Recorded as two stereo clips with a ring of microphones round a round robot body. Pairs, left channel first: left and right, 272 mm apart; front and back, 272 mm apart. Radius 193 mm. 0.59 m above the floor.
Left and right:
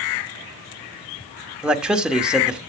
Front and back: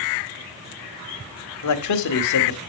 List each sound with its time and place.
1.6 s a man speaking: 5° right, 1.7 m